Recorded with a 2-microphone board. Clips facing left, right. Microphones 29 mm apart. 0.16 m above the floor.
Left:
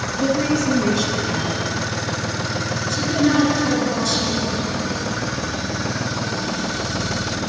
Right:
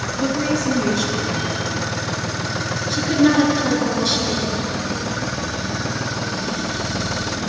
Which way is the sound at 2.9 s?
25° right (ahead or behind).